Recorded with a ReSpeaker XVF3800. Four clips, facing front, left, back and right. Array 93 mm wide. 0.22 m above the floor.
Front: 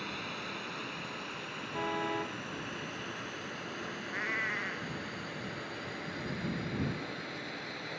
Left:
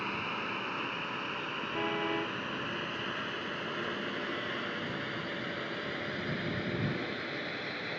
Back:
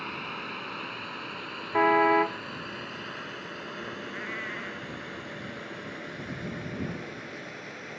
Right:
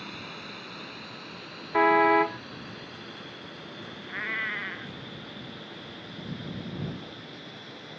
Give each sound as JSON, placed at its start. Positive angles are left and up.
{"t": 0.0, "sound": "a drone", "azimuth_deg": 130}
{"t": 1.7, "sound": "a car horn", "azimuth_deg": -125}
{"t": 4.1, "sound": "a cat meowing", "azimuth_deg": -65}